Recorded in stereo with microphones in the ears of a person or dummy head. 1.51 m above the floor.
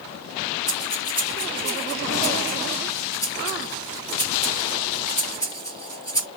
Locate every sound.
0.7 s breathing: 15° left (ahead or behind), 0.9 m